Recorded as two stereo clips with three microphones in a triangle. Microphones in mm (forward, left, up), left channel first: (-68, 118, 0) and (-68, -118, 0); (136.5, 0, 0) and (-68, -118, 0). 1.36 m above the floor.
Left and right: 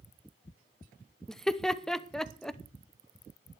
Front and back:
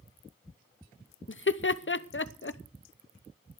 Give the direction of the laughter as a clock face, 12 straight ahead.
12 o'clock.